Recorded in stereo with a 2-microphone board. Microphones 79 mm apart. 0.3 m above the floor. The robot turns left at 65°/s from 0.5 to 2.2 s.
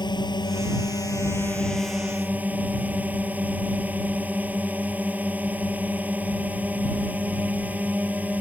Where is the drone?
85° left; by 8.4 s 25° right.